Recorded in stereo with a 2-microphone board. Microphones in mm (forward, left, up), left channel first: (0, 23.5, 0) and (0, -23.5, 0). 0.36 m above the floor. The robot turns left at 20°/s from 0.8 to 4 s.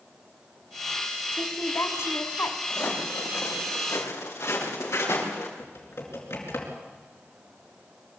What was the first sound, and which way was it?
A woman speaking, 65° left (ahead or behind).